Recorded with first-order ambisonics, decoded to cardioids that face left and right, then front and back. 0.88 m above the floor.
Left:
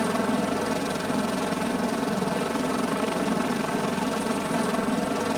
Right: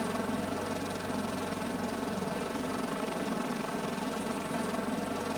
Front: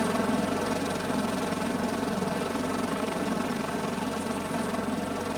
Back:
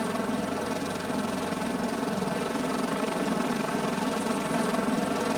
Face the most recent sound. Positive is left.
turn(degrees=115)